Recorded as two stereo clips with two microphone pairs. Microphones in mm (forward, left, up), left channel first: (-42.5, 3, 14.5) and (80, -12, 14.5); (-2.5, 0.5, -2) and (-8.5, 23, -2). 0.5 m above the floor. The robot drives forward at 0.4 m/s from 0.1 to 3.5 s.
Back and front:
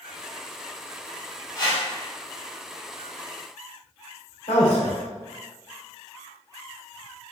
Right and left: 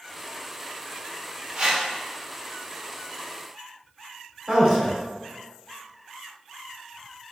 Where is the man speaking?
150° left, 1.6 m.